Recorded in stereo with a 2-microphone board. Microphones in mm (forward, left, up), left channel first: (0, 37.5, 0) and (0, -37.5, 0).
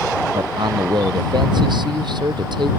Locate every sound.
0.3 s a man speaking: 80° right